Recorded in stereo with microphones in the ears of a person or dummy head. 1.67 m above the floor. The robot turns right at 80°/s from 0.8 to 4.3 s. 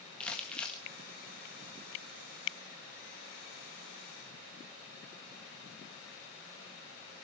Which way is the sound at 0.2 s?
15° left (ahead or behind).